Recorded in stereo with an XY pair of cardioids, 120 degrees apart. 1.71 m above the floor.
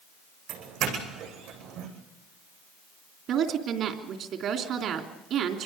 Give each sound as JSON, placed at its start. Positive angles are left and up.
{"t": 0.5, "sound": "a doorbell", "azimuth_deg": -70, "distance_m": 10.0}
{"t": 3.3, "sound": "a woman speaking", "azimuth_deg": -65, "distance_m": 3.0}